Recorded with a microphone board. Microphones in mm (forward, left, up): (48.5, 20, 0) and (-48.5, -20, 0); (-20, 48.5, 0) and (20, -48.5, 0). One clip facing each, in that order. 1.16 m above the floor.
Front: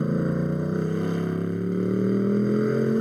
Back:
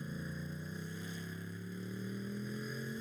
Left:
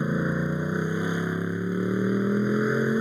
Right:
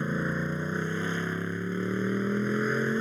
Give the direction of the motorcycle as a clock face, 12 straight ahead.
11 o'clock.